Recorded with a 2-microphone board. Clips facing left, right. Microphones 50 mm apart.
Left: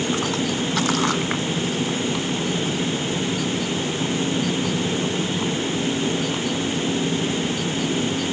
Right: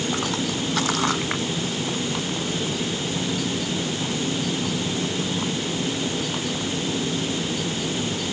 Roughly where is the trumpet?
I don't hear a trumpet.